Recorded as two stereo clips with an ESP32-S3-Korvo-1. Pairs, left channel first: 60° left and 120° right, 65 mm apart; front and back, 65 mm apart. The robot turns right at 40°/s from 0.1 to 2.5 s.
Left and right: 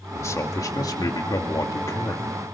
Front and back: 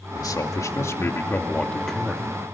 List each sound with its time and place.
0.1 s a man speaking: 15° left, 2.5 m; by 2.2 s 100° left, 2.5 m